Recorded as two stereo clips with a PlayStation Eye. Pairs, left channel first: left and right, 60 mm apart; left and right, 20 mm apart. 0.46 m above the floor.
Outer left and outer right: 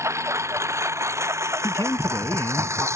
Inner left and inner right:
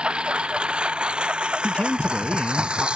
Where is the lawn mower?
55° right (ahead or behind).